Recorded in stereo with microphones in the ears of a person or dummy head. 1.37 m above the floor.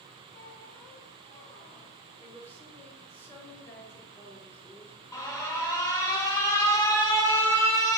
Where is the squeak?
40° left (ahead or behind), 1.5 m.